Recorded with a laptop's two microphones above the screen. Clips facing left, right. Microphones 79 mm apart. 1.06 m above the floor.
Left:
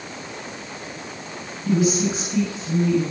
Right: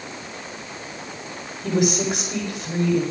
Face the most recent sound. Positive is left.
turn(degrees=-80)